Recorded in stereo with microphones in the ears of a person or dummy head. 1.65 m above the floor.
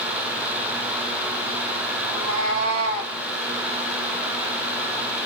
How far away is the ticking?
No ticking in this recording.